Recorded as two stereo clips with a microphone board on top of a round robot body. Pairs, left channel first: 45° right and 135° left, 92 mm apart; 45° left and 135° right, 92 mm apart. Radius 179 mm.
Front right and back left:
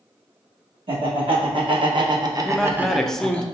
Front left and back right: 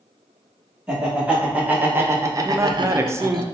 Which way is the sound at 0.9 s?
145° left.